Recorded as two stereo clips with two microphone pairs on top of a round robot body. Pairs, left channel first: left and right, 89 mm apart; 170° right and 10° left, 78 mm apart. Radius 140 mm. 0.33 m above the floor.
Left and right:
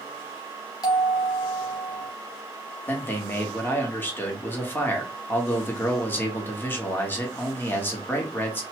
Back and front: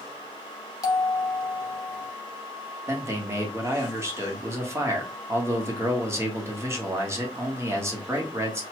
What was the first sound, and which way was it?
A bell, 145° left.